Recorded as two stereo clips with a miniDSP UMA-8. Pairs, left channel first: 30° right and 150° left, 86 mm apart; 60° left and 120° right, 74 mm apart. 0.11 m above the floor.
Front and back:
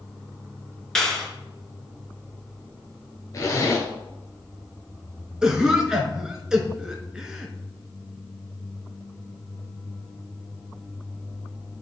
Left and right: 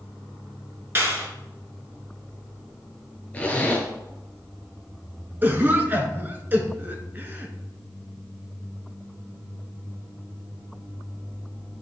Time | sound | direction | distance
0.9 | a clap | 110° right | 1.5 m
3.3 | a zipper | straight ahead | 1.5 m
5.4 | a cough | 140° right | 1.2 m